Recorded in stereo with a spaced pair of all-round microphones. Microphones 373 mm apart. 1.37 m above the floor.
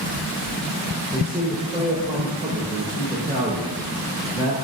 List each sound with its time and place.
1.1 s a man speaking: 10° right (ahead or behind), 4 m